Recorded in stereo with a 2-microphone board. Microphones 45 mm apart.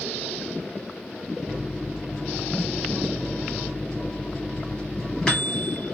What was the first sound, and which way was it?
A microwave, 15° left (ahead or behind).